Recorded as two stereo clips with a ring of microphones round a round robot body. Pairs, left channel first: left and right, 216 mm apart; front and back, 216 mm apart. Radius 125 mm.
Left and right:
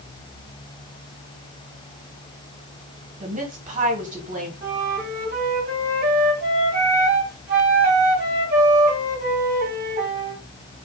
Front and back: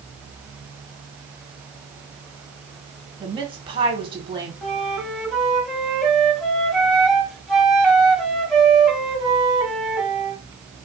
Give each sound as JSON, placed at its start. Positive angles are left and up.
{"t": 3.2, "sound": "a woman speaking", "azimuth_deg": -125, "distance_m": 1.5}
{"t": 4.6, "sound": "a flute", "azimuth_deg": -90, "distance_m": 1.5}